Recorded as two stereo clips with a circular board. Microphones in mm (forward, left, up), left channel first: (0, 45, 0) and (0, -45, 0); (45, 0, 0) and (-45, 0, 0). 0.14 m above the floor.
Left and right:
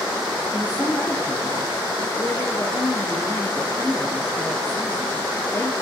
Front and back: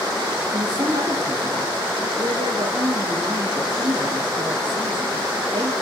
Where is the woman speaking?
150° left, 3 m.